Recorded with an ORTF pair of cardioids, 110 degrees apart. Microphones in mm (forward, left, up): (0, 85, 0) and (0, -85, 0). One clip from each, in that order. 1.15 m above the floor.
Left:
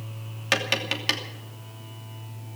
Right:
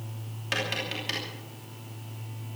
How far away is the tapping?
About 3 m.